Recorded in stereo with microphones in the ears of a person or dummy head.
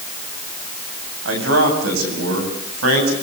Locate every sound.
1.2 s a man speaking: 75° right (ahead or behind), 8 m; by 3.1 s 80° right, 9 m